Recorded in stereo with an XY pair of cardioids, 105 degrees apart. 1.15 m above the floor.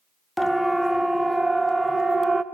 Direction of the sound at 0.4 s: Straight ahead.